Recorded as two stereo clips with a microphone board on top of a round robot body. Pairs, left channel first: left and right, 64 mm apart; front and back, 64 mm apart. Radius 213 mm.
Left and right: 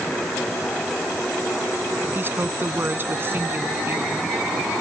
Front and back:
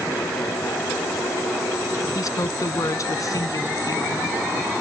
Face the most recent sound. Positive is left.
turn(degrees=-35)